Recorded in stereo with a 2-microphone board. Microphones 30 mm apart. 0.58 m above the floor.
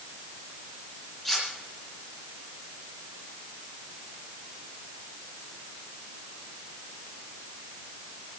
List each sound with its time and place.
1.2 s cutlery clinking: 10° left (ahead or behind), 8.5 m